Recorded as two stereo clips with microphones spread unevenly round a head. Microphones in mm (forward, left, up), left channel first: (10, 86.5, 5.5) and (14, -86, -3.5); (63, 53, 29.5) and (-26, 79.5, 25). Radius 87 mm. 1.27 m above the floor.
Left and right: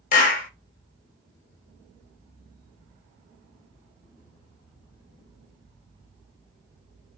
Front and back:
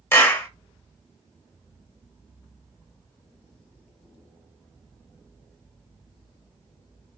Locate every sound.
0.1 s a clap: 50° left, 1.2 m